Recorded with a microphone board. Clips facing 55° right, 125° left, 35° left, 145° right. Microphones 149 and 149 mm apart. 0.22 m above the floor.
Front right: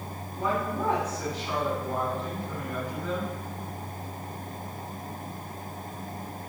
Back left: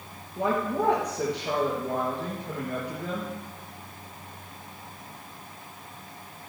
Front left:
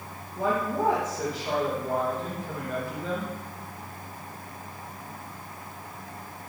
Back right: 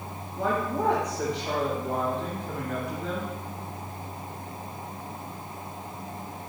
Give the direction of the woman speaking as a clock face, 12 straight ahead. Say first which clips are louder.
Back left 3 dB, front left 1 dB; 8 o'clock.